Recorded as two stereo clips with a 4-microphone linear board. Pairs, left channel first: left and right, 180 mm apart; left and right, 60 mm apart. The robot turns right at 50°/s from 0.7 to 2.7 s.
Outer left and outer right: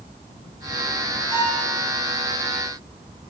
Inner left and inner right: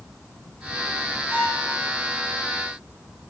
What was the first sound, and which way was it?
A violin, 45° right (ahead or behind).